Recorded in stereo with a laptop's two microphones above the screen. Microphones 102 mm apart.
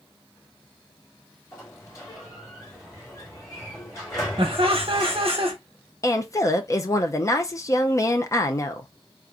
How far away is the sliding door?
About 2 m.